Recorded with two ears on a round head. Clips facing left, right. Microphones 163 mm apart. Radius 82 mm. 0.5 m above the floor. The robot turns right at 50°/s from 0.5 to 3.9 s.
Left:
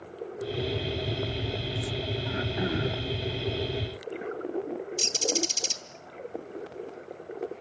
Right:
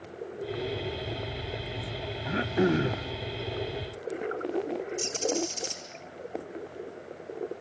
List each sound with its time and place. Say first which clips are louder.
2.2 s throat clearing: right 8 dB; 95° right, 1.3 m; by 3.1 s 55° right, 1.3 m
5.0 s a bird: right 1 dB; 75° left (ahead or behind), 3 m